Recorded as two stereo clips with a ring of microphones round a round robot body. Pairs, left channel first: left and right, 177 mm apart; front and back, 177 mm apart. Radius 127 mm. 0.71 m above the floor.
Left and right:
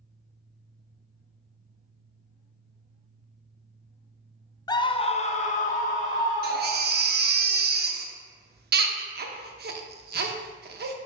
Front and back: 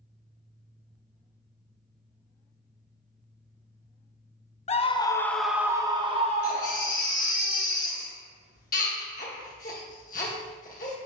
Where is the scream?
30° left, 0.7 m; by 7.0 s 140° left, 1.2 m.